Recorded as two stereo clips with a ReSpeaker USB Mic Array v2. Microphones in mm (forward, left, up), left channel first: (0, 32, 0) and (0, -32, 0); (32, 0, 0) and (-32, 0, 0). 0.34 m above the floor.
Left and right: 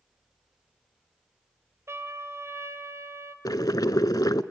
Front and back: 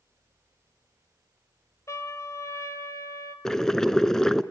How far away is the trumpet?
About 1.7 m.